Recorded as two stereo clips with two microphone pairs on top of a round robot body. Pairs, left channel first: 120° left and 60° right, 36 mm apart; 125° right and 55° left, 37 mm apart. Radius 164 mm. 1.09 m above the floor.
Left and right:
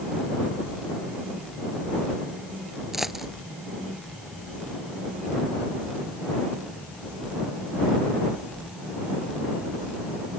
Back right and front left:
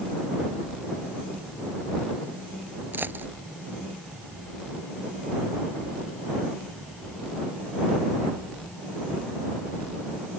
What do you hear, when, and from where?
2.9 s a dropped coin: 20° left